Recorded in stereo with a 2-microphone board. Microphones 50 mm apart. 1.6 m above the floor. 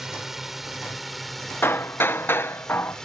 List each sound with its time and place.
0.0 s a drone: 5° right (ahead or behind); by 3.1 s 10° left (ahead or behind)
1.6 s hammering: 45° left (ahead or behind)